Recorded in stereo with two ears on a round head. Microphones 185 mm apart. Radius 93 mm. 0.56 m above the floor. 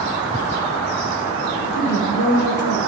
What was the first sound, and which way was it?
A woman speaking, 55° left (ahead or behind).